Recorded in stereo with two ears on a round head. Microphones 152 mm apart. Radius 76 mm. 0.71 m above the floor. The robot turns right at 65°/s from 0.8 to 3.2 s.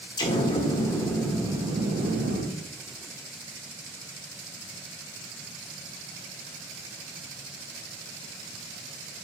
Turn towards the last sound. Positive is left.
turn(degrees=-50)